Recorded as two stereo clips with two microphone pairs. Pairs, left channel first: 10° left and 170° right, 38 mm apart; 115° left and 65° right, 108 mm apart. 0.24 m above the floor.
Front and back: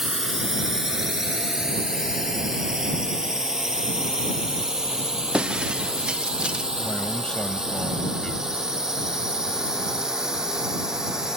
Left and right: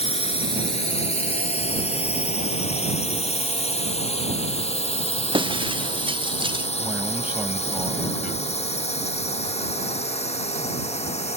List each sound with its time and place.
0.0 s a drone: 110° left; by 11.4 s 115° left
5.3 s breaking glass: 105° right
6.8 s a man speaking: 10° right